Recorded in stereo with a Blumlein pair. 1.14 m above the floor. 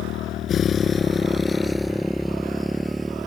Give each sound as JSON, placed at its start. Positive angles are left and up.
{"t": 0.0, "sound": "a motorcycle", "azimuth_deg": 35}